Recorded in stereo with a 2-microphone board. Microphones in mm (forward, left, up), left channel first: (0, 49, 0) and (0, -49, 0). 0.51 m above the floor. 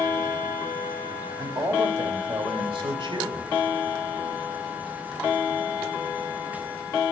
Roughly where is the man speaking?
Right.